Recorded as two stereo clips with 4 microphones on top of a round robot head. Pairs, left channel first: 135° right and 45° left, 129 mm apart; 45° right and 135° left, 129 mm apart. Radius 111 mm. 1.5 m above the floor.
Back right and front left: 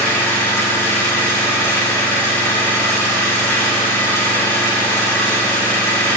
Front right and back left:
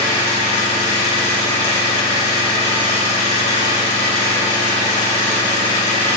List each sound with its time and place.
0.0 s an engine running: 60° right, 4.5 m